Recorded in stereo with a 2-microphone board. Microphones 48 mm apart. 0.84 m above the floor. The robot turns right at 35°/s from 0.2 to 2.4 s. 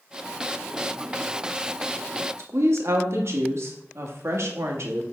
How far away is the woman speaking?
About 1.4 m.